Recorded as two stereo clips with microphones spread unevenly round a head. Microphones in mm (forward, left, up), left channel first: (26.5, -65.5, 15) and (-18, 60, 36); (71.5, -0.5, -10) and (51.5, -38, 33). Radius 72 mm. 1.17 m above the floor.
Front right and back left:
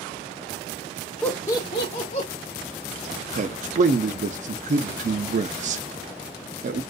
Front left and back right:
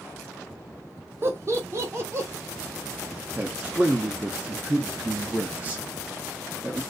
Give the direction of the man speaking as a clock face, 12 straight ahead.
7 o'clock.